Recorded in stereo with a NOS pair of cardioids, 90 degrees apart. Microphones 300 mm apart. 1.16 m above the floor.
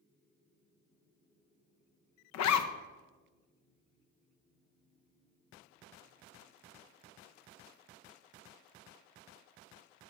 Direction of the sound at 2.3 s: 65° left.